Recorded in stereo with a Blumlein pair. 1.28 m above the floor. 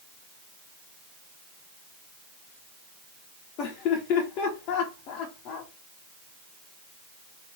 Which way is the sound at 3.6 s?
40° left.